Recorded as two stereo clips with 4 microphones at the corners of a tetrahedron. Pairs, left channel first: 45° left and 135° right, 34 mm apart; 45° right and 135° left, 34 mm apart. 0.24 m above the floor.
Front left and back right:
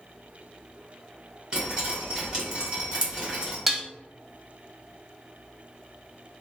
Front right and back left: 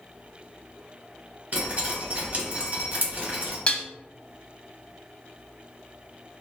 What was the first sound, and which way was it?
Dripping, 160° left.